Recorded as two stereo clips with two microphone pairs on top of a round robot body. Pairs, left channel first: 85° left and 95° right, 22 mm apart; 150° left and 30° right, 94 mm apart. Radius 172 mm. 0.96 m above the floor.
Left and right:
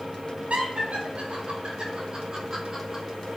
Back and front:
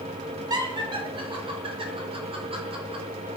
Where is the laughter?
70° right, 2.5 m; by 3.0 s 25° right, 3 m.